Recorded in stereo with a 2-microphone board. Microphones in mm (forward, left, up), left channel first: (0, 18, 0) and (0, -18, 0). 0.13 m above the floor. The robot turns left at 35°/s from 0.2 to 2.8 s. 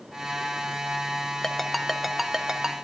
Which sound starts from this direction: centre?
A ringtone, at 1.4 s.